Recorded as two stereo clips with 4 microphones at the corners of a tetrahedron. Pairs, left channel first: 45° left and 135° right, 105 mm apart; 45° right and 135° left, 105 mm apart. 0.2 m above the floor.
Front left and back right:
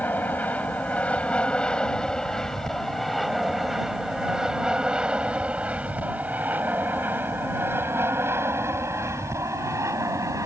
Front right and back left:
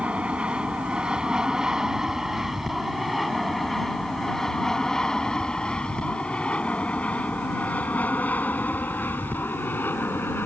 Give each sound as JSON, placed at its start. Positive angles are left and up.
{"t": 0.0, "sound": "an aircraft", "azimuth_deg": 80}